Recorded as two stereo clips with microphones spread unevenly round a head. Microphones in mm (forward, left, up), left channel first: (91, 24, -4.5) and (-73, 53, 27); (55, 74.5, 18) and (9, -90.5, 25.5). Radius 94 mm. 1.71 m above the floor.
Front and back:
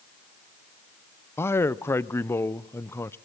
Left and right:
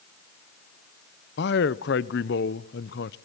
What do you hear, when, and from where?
1.4 s a man speaking: 70° left, 0.7 m